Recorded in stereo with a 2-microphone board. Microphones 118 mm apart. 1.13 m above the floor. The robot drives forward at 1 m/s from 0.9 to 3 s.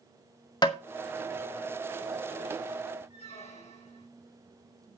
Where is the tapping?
35° left (ahead or behind), 0.9 m.